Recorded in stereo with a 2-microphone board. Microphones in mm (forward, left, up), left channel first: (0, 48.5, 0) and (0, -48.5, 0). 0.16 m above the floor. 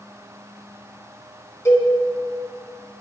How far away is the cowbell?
About 1.2 m.